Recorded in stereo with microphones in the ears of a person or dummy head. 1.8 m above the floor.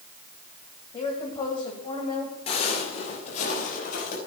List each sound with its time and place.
0.9 s a woman speaking: 25° left (ahead or behind), 1.8 m
2.5 s footsteps: 35° left (ahead or behind), 3 m; by 4.2 s 50° left (ahead or behind), 5 m